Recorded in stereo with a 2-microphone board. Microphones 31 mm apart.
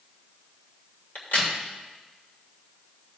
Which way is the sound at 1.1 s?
80° left.